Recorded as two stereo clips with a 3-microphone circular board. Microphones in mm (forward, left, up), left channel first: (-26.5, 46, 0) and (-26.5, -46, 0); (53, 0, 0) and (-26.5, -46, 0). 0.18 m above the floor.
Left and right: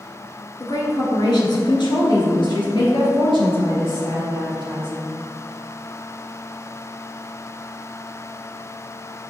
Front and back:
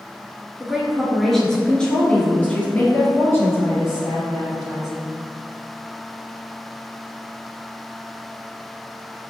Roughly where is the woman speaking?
Behind left.